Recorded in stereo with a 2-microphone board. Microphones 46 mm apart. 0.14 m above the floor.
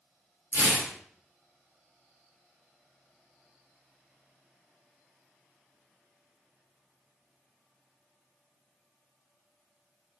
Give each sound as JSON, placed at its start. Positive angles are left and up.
{"t": 0.5, "sound": "tearing paper", "side_deg": -50, "distance_m": 0.8}